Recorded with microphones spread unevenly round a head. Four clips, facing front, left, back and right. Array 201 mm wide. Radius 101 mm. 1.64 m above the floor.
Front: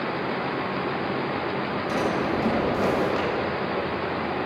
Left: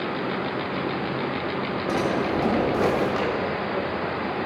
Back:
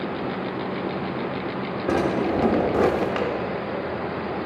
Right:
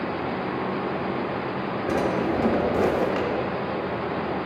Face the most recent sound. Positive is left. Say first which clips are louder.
# right 1 dB, back 4 dB
turn(degrees=180)